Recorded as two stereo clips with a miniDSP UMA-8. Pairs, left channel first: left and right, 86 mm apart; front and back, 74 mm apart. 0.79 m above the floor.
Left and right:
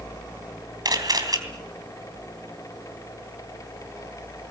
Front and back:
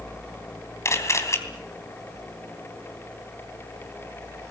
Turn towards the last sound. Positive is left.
turn(degrees=-50)